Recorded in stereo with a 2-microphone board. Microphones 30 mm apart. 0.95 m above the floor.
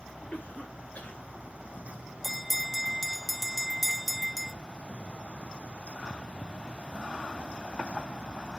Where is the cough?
65° left (ahead or behind), 2.5 m.